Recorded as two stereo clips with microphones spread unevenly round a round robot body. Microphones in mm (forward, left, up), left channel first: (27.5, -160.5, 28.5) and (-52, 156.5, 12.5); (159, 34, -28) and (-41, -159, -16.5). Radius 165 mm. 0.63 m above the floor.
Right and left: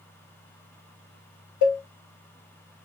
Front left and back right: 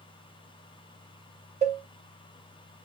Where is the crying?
No crying in this recording.